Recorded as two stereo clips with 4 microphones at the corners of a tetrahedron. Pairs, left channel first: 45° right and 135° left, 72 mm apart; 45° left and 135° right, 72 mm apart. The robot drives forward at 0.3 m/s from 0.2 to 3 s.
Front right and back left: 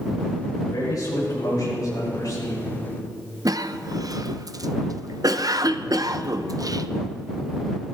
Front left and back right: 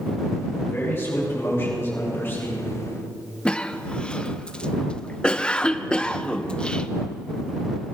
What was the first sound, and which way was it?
A man speaking, 15° right.